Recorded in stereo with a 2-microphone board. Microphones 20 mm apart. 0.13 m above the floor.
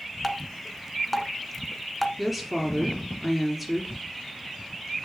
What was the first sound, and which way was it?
Dripping, 5° left (ahead or behind).